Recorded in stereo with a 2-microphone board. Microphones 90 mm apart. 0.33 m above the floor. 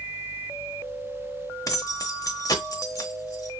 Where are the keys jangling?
40° left (ahead or behind), 0.8 m.